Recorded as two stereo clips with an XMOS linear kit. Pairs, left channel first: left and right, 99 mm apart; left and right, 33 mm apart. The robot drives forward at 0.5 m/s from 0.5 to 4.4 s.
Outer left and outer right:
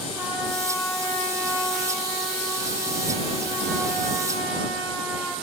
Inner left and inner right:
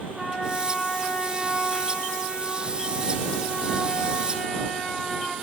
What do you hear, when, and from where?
0.1 s a trumpet: 25° right (ahead or behind), 8.5 m; by 5.3 s 20° right (ahead or behind), 10.5 m